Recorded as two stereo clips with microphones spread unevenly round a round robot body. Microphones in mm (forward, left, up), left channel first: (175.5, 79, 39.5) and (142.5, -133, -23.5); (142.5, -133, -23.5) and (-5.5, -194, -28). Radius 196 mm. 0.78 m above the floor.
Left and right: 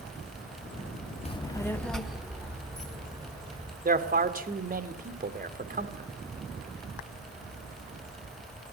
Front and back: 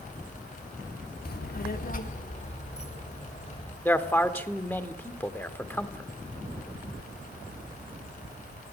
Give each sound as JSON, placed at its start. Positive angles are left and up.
{"t": 1.2, "sound": "a child speaking", "azimuth_deg": 10, "distance_m": 1.4}
{"t": 3.9, "sound": "a man speaking", "azimuth_deg": -55, "distance_m": 2.5}